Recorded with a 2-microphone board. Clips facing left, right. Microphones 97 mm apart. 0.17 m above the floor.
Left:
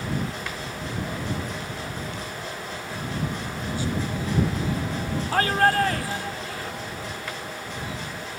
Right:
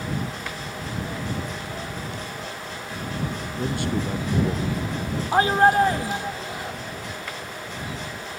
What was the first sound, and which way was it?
A man speaking, 65° right (ahead or behind).